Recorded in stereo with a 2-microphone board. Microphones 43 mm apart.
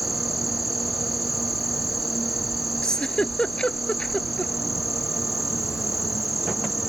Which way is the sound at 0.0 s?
5° right (ahead or behind).